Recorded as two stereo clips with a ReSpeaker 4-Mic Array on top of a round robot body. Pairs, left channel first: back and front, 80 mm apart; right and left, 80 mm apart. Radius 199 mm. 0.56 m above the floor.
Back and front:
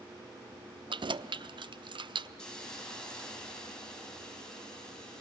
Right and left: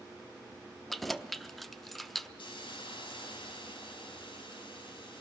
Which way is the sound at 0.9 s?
Straight ahead.